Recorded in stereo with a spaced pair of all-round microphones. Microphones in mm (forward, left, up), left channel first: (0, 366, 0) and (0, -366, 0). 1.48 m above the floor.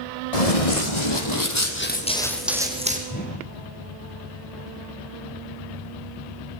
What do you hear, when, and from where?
0.3 s running footsteps: 55° left (ahead or behind), 3 m; by 3.0 s 10° right (ahead or behind), 4 m
3.1 s a whoosh: 10° left (ahead or behind), 5.5 m